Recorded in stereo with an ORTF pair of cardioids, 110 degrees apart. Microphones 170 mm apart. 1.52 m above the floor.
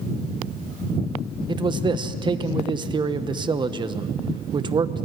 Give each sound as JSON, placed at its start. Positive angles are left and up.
{"t": 1.5, "sound": "a man speaking", "azimuth_deg": -25, "distance_m": 1.1}